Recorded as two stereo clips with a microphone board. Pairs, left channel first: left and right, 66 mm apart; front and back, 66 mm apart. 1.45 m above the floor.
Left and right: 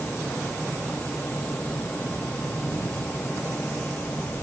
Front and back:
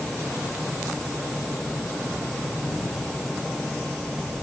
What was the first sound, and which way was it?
Only background noise.